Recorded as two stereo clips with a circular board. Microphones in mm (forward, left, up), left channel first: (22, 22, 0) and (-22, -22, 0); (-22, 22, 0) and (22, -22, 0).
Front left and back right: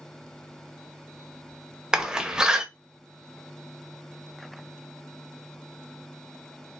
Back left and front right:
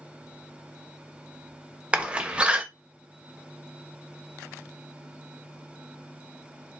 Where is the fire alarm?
I don't hear a fire alarm.